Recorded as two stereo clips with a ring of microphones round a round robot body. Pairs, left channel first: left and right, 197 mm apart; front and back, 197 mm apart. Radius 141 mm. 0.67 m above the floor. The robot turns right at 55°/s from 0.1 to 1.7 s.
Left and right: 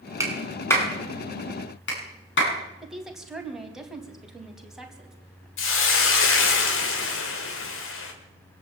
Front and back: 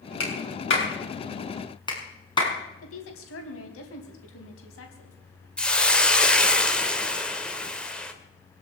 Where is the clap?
15° right, 6.5 m; by 2.5 s 65° left, 6.5 m.